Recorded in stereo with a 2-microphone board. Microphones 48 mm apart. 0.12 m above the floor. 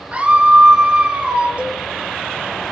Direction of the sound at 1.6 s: 30° right (ahead or behind).